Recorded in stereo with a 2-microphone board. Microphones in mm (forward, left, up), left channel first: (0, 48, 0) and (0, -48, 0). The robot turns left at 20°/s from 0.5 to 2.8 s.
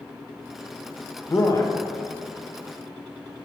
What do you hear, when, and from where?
1.3 s a man speaking: 35° left (ahead or behind), 1.0 m; by 1.8 s 40° left (ahead or behind), 1.0 m